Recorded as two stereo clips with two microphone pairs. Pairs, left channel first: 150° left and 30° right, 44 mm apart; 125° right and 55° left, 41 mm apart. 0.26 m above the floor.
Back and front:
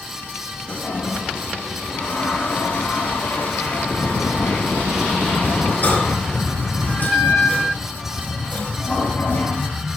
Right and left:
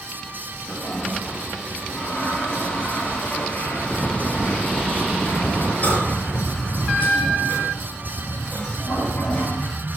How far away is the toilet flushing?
About 6.5 m.